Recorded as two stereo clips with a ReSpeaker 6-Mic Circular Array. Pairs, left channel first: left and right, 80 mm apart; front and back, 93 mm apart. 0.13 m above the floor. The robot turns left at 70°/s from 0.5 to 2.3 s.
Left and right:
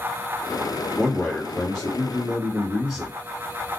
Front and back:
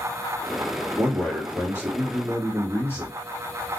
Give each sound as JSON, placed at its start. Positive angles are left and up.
{"t": 1.0, "sound": "a man speaking", "azimuth_deg": 75, "distance_m": 1.6}